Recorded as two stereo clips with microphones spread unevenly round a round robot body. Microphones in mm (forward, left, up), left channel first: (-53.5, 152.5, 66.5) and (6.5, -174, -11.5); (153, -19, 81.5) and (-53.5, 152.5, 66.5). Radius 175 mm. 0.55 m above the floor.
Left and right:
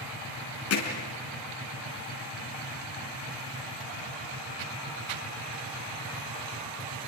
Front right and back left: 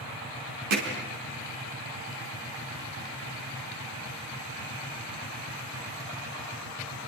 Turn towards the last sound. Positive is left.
turn(degrees=150)